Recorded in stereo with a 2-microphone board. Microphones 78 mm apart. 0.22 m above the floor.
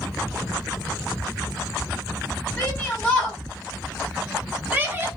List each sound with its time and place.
2.6 s a shout: 25° left (ahead or behind), 1.9 m; by 5.1 s 30° right (ahead or behind), 1.8 m